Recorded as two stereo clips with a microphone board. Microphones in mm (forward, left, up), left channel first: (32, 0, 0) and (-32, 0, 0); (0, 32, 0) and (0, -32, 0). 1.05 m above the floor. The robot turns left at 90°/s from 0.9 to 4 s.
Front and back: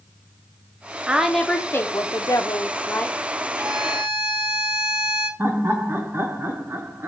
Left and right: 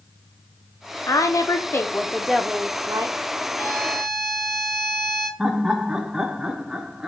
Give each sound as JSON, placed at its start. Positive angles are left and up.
{"t": 1.1, "sound": "a woman speaking", "azimuth_deg": 110, "distance_m": 0.6}
{"t": 3.6, "sound": "a violin", "azimuth_deg": 130, "distance_m": 1.9}
{"t": 5.4, "sound": "laughter", "azimuth_deg": -165, "distance_m": 0.7}